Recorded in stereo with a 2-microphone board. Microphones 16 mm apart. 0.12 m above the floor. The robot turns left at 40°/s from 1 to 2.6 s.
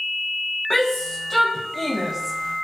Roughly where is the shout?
Left.